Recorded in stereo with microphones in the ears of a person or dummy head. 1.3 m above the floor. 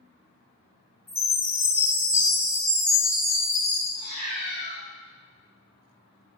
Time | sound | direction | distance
1.1 | a chime | 5° right (ahead or behind) | 1.6 m
4.0 | a cat meowing | 45° right (ahead or behind) | 1.1 m